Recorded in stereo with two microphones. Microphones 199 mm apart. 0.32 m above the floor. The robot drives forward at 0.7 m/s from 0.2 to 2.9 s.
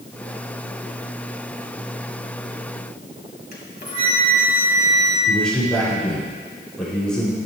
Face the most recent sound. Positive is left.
turn(degrees=5)  # may be behind; listen again after turning